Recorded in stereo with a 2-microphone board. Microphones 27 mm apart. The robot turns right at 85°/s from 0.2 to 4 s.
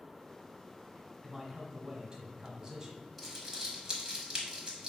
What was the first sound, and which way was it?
A man speaking, straight behind.